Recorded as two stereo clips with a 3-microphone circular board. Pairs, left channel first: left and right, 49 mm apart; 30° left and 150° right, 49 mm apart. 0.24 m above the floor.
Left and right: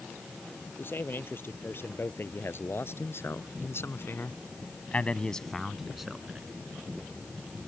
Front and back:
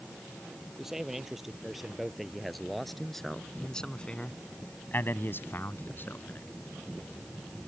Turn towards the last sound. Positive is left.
turn(degrees=-15)